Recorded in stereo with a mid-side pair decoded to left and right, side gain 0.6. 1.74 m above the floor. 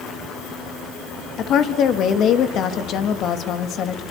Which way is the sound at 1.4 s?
55° left.